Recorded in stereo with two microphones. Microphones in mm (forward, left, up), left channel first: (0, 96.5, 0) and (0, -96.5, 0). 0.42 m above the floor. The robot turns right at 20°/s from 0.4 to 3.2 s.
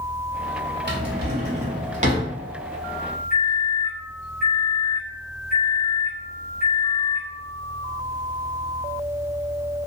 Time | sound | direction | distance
0.9 | a drawer | 65° right (ahead or behind) | 0.8 m
3.3 | a microwave | 50° right (ahead or behind) | 1.4 m